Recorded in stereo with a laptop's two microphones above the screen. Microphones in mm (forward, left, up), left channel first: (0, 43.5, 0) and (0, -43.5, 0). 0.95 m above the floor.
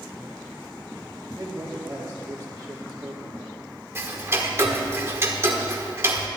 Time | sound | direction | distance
1.3 | a man speaking | 25° right (ahead or behind) | 2.5 m
4.0 | ticking | 30° right (ahead or behind) | 1.1 m